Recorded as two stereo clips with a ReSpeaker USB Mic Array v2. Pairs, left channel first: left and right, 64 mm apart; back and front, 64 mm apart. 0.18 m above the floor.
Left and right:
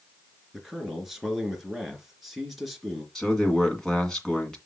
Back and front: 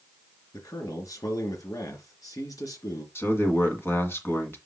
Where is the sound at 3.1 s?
170° left, 2 m.